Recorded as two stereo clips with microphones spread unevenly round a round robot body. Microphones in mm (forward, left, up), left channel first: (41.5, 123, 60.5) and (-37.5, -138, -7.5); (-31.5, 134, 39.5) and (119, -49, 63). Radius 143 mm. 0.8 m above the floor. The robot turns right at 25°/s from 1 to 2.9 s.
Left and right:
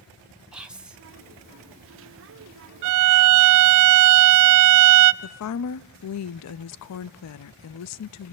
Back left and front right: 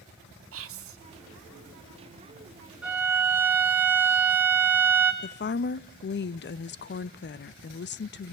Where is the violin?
130° right, 0.8 m.